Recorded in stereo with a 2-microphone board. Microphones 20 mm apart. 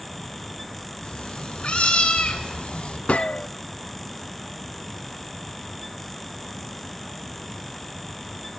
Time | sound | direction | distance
1.0 | a cat meowing | 55° left (ahead or behind) | 5 m
3.1 | a gunshot | 75° left (ahead or behind) | 0.5 m